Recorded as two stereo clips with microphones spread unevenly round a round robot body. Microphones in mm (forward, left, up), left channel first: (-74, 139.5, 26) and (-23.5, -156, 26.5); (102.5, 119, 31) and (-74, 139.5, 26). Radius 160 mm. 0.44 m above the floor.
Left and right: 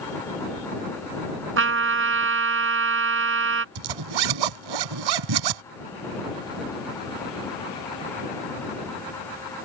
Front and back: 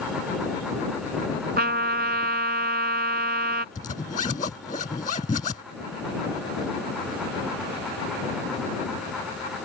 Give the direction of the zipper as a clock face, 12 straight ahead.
3 o'clock.